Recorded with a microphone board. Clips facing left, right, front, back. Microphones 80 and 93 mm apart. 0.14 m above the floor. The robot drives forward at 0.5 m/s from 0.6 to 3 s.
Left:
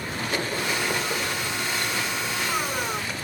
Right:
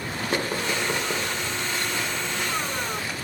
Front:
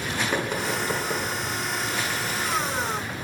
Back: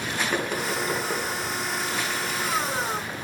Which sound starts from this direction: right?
Knocking, at 0.3 s.